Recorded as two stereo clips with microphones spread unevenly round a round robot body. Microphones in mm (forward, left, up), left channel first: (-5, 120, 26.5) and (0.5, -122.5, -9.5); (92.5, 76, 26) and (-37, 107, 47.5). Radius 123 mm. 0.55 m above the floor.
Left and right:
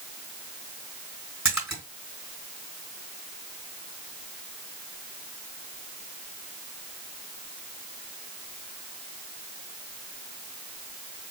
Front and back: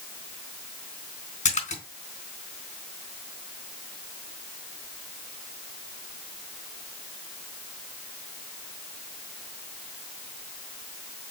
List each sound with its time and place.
1.4 s a splash: 5° right, 3.5 m